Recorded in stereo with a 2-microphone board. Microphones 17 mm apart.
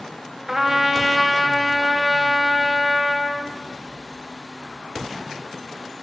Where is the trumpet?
20° right (ahead or behind), 2.5 m.